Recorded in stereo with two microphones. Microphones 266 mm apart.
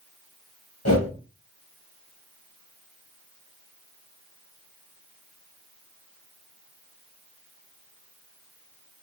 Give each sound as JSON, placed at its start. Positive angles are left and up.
{"t": 0.8, "sound": "a whoosh", "side_deg": 65, "distance_m": 1.0}